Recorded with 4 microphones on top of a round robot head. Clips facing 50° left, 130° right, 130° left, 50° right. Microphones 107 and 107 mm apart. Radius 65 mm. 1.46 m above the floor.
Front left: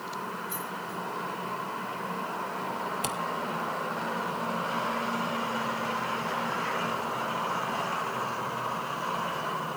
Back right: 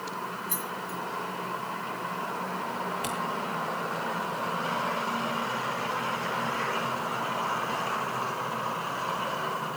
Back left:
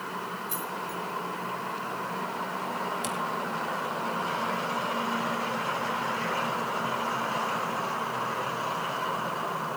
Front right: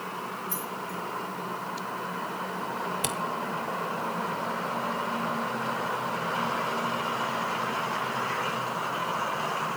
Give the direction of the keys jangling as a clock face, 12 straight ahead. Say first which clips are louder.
Back right 1 dB, back left 1 dB; 5 o'clock.